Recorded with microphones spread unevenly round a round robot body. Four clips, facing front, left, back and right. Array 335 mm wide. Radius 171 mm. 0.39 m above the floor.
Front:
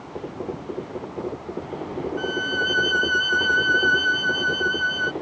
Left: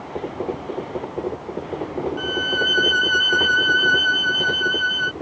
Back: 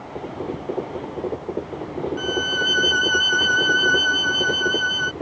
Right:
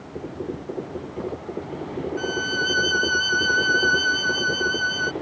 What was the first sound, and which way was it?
A violin, 170° right.